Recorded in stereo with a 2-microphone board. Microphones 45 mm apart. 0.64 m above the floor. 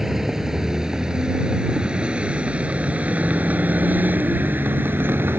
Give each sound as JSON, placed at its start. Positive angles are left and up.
{"t": 0.0, "sound": "a vehicle", "side_deg": -10}